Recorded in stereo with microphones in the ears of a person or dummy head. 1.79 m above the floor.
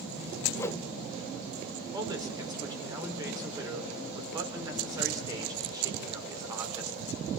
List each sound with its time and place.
0.6 s a whoosh: 10° left (ahead or behind), 1.0 m
1.9 s a man speaking: 25° right (ahead or behind), 5.5 m